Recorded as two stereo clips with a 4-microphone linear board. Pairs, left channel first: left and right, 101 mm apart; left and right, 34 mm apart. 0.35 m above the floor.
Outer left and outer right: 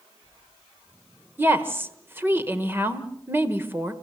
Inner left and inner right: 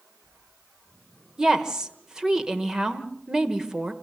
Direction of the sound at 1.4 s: 20° right (ahead or behind).